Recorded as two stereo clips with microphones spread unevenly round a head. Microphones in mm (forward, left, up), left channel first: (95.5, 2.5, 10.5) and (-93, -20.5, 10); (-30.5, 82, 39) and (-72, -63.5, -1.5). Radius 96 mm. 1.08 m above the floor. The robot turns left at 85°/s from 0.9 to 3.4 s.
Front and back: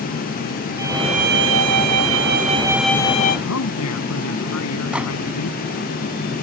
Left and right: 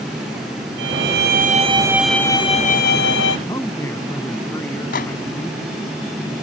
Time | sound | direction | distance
0.8 | a violin | 100° right | ?
3.5 | a man speaking | 5° right | ?
4.9 | a microwave | 100° left | ?